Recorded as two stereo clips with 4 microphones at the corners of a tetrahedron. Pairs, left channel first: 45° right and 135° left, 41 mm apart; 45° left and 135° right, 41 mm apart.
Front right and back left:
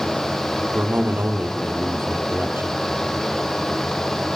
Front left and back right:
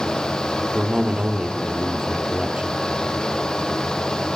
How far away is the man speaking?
About 3.5 m.